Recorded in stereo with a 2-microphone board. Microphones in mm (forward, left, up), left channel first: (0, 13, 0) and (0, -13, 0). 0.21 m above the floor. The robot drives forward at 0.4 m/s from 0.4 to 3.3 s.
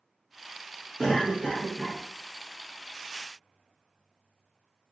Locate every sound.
1.0 s a cough: 20° left (ahead or behind), 1.4 m